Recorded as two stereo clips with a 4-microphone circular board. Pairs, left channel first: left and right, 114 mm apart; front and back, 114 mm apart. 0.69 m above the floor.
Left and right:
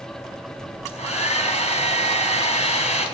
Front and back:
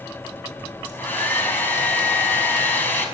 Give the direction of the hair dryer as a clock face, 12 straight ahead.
10 o'clock.